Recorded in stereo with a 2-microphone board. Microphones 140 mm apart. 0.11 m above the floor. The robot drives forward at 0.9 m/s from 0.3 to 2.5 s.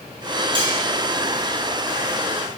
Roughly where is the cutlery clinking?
Right.